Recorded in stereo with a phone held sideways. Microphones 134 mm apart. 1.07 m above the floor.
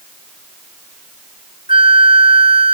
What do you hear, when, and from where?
1.7 s a flute: 85° left, 0.6 m